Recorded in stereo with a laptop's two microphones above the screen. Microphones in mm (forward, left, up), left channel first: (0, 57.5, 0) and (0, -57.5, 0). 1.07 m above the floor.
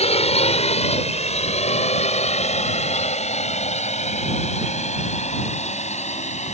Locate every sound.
0.0 s a drone: 60° left (ahead or behind); by 6.5 s 75° left (ahead or behind)